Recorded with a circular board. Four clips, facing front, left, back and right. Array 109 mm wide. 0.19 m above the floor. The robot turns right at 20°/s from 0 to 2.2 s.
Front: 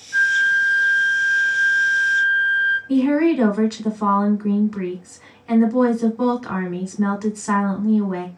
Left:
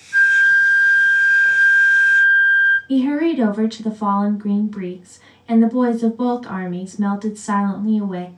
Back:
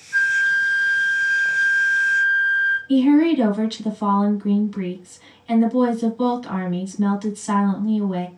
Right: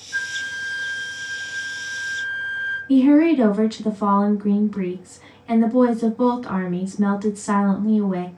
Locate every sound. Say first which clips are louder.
0.1 s a flute: left 14 dB, front 1 dB; 140° left, 1.4 m; by 2.8 s straight behind, 1.4 m
2.9 s a woman speaking: right 9 dB, back 2 dB; 25° right, 1.2 m